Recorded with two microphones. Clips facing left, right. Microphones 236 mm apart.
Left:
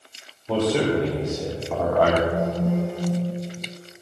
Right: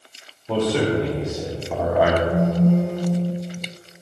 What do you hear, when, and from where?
0.5 s a man speaking: 5° left (ahead or behind), 2.5 m; by 2.2 s 10° right (ahead or behind), 1.4 m
2.3 s a phone buzzing: 50° right (ahead or behind), 4.5 m